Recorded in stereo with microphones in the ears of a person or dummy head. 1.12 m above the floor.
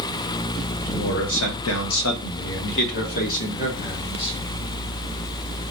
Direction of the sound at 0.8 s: 50° left (ahead or behind).